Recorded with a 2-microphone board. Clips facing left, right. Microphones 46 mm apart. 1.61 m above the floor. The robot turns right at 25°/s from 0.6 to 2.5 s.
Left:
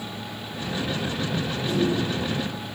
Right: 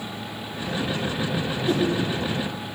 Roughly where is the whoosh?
Right.